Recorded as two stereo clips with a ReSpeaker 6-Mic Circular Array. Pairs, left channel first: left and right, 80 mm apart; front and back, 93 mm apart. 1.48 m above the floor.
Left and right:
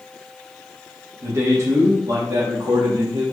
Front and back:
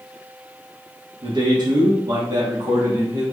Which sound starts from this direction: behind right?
A man speaking, at 1.2 s.